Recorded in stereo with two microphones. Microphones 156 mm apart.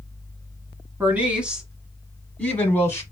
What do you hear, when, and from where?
1.0 s a woman speaking: 10° right (ahead or behind), 1.7 m; by 3.0 s 15° left (ahead or behind), 1.4 m